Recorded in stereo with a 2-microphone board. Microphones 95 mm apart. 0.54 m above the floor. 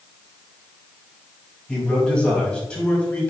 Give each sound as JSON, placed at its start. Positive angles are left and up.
{"t": 1.7, "sound": "a man speaking", "side_deg": 10, "distance_m": 3.5}